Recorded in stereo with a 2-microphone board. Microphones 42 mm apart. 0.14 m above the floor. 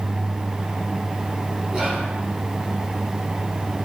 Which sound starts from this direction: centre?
Whispering, at 1.7 s.